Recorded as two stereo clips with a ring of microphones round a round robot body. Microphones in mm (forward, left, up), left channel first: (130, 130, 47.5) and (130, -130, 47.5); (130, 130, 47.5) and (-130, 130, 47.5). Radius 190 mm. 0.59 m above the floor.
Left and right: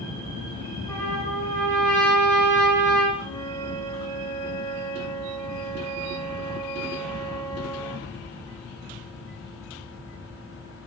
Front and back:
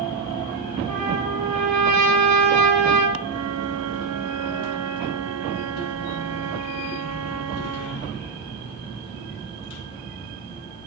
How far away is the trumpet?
About 4.5 m.